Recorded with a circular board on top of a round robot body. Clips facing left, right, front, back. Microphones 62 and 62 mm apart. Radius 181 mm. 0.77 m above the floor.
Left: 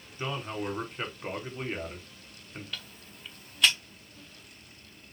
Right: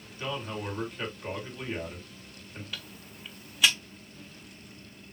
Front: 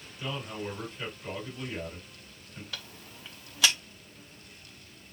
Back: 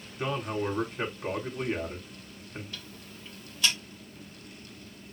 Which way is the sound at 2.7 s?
5° right.